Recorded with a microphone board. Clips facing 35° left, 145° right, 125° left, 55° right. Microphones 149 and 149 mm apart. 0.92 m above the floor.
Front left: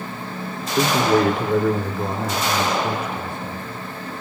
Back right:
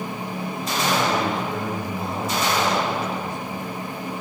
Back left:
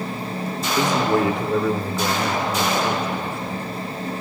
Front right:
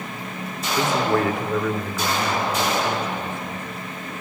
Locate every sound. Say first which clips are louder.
0.8 s a man speaking: front left 6 dB, back left 1 dB; 50° left, 2.5 m; by 3.9 s 70° left, 4 m